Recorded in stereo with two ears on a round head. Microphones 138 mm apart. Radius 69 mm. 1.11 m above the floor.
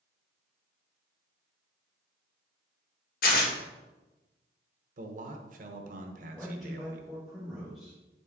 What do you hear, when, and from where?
3.2 s tearing paper: 60° left (ahead or behind), 1.6 m
5.0 s a man speaking: 55° right (ahead or behind), 1.0 m
6.3 s a man speaking: centre (ahead or behind), 1.6 m